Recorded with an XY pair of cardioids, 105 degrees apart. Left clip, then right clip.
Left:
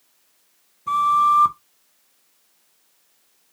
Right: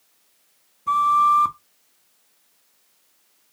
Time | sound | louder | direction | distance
0.9 | a flute | even | 5° left | 0.7 m